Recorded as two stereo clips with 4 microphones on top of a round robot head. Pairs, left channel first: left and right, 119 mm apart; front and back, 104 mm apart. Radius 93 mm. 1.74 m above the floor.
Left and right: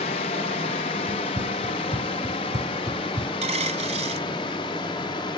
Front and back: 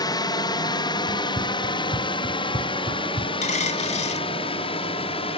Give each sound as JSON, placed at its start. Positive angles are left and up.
{"t": 0.0, "sound": "a drone", "azimuth_deg": 50}
{"t": 1.1, "sound": "running footsteps", "azimuth_deg": -140}
{"t": 3.4, "sound": "a dropped coin", "azimuth_deg": -35}